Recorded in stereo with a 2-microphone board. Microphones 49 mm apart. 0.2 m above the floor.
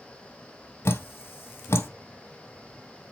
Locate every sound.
0.8 s dripping: 60° left (ahead or behind), 0.9 m